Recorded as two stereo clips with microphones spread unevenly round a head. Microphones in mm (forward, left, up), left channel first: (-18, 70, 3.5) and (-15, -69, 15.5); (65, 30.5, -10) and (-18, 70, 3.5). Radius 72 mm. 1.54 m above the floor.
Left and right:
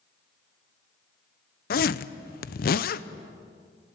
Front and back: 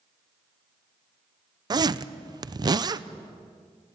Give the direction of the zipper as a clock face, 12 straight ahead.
8 o'clock.